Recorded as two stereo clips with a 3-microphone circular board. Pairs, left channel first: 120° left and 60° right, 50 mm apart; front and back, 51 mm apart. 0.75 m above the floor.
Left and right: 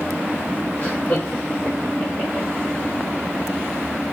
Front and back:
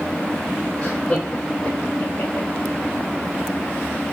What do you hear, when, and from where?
0.8 s laughter: 65° left, 3 m; by 2.5 s 45° left, 3 m